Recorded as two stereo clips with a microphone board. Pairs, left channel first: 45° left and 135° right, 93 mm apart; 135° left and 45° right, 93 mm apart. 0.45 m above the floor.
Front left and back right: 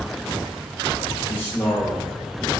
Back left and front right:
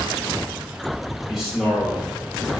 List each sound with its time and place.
1.3 s a man speaking: 50° left, 0.9 m